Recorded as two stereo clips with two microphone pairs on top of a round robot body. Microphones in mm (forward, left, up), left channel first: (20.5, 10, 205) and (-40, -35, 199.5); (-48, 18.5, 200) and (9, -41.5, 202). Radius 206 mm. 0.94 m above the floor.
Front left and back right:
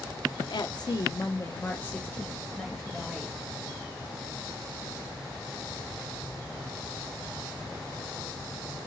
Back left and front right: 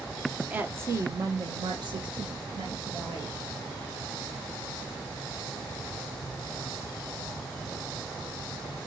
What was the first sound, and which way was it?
A woman speaking, 25° left.